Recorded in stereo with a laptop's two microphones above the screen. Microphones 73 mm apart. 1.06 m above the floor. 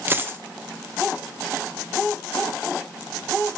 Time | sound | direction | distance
0.1 | a dropped coin | 30° right (ahead or behind) | 0.6 m